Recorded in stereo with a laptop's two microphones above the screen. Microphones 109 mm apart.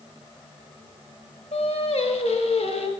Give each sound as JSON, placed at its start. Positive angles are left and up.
{"t": 1.5, "sound": "singing", "side_deg": 70, "distance_m": 1.2}